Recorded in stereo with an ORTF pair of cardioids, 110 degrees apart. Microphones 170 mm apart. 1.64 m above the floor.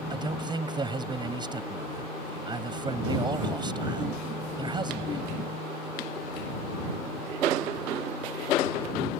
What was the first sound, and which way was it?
A man speaking, 25° right.